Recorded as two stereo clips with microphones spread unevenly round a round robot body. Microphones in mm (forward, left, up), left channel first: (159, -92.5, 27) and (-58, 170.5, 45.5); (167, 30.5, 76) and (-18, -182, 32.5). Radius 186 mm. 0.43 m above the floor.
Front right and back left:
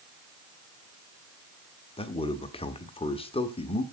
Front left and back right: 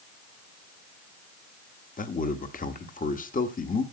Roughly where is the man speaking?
Ahead.